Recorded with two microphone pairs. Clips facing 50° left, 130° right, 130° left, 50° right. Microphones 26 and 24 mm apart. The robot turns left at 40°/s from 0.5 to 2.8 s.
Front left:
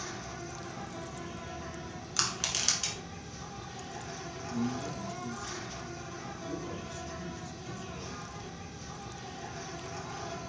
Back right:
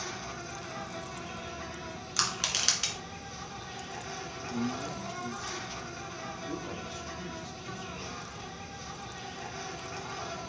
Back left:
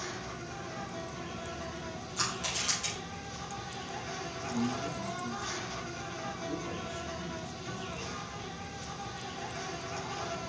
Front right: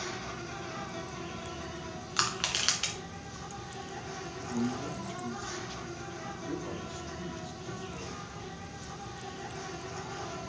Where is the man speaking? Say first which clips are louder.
Even, even; 70° right, 1.4 m.